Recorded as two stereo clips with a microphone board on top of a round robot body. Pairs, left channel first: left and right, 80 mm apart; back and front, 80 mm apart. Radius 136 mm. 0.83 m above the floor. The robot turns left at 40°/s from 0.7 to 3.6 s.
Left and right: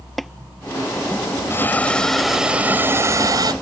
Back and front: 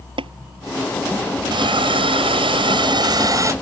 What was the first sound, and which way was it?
Tapping, straight ahead.